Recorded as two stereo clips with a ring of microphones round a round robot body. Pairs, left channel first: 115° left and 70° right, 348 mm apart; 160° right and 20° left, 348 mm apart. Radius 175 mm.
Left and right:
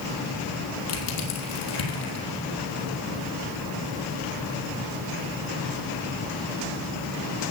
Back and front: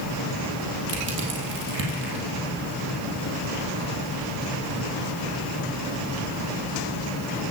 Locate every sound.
0.9 s crushing: 80° left, 3 m